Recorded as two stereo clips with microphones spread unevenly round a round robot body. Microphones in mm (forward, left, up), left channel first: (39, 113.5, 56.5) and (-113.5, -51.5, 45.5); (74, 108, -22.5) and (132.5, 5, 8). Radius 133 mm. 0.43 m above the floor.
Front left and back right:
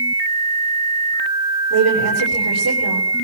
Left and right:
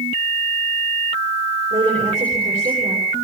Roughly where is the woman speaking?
Behind right.